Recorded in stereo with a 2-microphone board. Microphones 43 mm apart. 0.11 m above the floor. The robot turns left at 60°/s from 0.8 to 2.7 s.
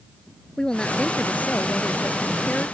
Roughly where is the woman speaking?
Behind.